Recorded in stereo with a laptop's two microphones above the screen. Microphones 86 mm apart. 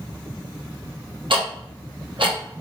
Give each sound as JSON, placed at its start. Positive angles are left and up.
{"t": 1.3, "sound": "ticking", "side_deg": -75, "distance_m": 1.0}